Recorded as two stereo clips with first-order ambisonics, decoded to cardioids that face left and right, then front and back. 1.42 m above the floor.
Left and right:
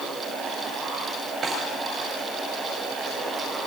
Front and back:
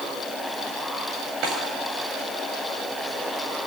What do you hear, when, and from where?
1.4 s a snare drum: 155° right, 7.5 m